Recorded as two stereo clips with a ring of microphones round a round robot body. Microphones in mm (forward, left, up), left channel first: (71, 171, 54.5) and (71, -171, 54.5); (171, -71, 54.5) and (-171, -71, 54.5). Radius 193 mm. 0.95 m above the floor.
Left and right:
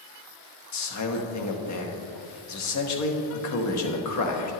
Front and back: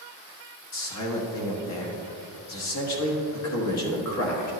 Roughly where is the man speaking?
Ahead left.